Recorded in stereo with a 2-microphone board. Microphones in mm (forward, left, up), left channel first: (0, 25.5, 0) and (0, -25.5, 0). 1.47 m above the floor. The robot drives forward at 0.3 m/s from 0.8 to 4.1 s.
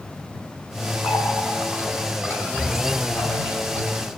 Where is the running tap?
80° left, 9 m; by 3.9 s 85° left, 9 m.